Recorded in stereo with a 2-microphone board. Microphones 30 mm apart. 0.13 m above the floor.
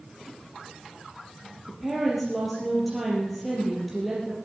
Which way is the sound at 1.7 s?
Centre (ahead or behind).